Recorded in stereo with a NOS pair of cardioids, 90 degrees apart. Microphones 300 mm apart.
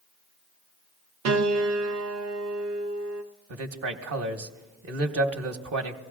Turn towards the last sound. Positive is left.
turn(degrees=-55)